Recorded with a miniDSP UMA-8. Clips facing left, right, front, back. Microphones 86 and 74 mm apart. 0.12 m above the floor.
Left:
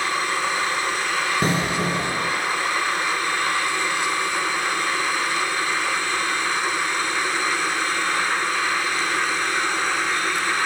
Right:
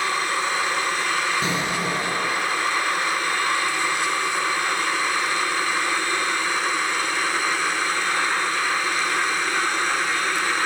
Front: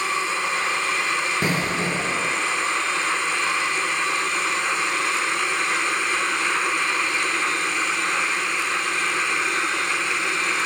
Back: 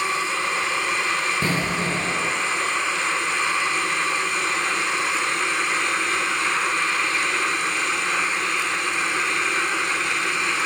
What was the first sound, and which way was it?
An explosion, 70° left.